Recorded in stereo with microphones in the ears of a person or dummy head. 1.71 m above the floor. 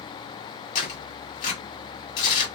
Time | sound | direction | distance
0.8 | tearing paper | 45° left (ahead or behind) | 1.6 m